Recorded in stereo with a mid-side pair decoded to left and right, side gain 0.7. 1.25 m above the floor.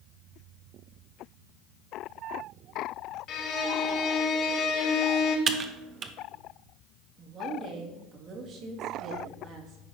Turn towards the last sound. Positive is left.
turn(degrees=-45)